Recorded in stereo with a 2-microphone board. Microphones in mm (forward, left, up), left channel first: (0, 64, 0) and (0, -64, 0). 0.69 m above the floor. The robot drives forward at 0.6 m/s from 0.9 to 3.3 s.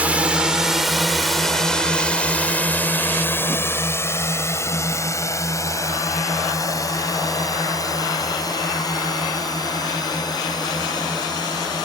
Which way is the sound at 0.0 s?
10° right (ahead or behind).